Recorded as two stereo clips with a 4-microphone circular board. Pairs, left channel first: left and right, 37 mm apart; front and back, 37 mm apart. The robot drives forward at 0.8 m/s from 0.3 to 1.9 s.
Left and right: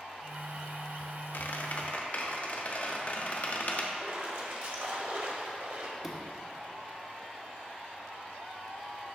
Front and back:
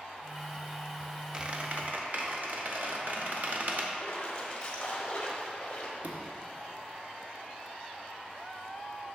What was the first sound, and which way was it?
A squeak, 110° left.